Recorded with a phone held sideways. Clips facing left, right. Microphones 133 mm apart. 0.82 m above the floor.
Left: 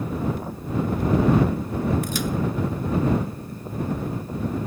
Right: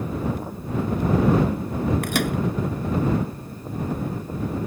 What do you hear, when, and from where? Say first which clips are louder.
2.0 s a microwave: right 2 dB; 75° right (ahead or behind)